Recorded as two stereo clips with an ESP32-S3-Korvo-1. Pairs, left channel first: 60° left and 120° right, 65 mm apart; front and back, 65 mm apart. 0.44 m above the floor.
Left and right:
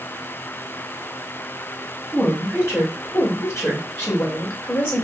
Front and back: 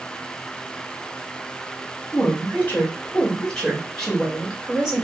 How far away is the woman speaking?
About 1.6 m.